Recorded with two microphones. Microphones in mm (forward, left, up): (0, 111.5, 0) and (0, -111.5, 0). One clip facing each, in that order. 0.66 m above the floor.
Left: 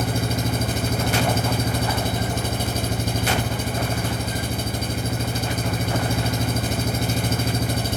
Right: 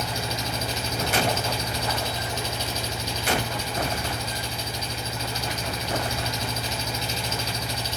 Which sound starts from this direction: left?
An engine running, at 0.0 s.